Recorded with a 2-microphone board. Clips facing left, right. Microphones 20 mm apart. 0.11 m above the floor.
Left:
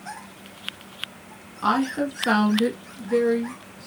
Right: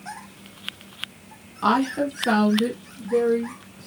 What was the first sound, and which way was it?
A woman speaking, centre (ahead or behind).